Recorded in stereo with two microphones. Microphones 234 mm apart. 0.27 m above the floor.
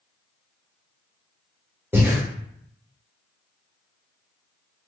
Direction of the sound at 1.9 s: 10° right (ahead or behind).